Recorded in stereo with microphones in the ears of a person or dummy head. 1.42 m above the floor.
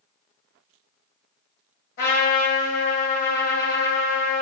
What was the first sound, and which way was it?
A trumpet, 50° left (ahead or behind).